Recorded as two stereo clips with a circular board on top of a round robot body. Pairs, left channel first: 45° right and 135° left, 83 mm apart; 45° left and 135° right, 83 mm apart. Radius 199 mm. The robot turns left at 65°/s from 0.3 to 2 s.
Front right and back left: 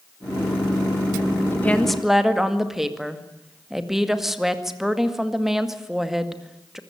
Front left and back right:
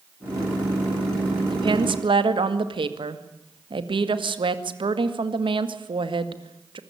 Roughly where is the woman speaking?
Right.